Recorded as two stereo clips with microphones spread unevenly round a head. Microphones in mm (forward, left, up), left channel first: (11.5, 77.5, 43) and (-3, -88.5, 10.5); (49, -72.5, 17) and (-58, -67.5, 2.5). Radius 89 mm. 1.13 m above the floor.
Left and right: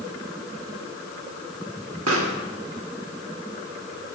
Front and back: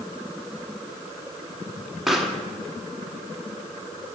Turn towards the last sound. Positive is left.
turn(degrees=-90)